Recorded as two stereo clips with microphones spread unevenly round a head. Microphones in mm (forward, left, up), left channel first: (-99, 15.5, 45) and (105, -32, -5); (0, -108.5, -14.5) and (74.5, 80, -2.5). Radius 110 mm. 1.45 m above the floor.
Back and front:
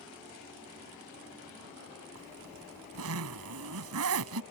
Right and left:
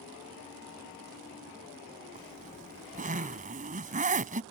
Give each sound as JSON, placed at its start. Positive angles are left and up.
{"t": 2.1, "sound": "a zipper", "azimuth_deg": 15}